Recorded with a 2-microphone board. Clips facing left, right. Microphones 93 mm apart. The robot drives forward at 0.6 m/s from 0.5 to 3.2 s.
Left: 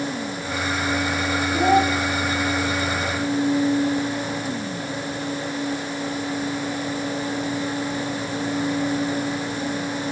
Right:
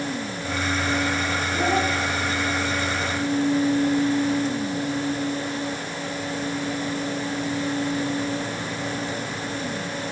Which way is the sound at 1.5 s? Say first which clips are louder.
Left 6 dB; 80° left.